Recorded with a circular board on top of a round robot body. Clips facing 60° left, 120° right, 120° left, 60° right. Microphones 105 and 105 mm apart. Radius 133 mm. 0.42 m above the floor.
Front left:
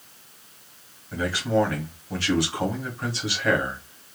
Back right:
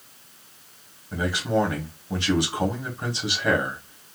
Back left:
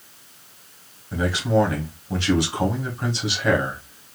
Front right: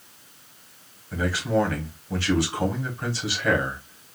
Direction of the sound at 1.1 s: Straight behind.